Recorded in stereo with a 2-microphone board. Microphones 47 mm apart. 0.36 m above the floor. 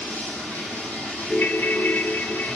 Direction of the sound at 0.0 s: 35° left (ahead or behind).